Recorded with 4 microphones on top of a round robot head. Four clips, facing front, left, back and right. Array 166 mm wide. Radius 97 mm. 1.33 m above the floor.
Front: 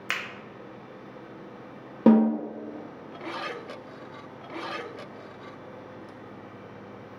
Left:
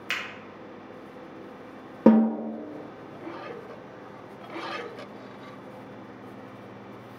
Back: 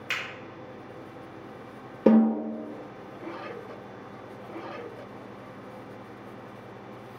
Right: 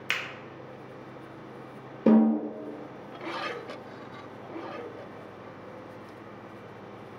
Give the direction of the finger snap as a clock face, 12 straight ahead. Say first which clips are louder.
Even, front 1 dB; 1 o'clock.